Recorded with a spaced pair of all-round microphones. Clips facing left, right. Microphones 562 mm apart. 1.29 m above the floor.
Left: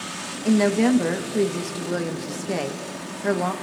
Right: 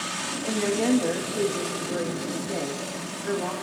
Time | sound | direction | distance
0.5 | a woman speaking | 85° left | 1.6 m